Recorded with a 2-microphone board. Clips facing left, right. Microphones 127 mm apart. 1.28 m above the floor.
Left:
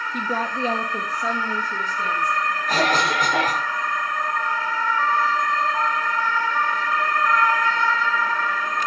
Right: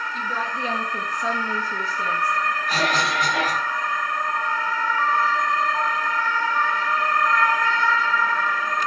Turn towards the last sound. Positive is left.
turn(degrees=45)  # may be behind; listen again after turning